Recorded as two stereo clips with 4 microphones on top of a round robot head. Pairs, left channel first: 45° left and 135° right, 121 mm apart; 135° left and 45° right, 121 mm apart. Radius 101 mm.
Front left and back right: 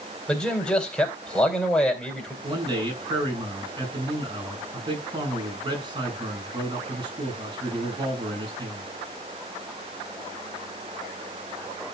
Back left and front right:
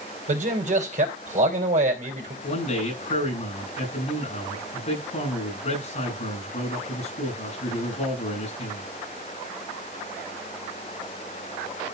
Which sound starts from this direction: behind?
A man speaking, at 2.4 s.